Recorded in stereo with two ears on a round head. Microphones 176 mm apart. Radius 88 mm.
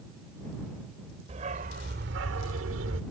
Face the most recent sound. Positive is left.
turn(degrees=-65)  # may be behind; listen again after turning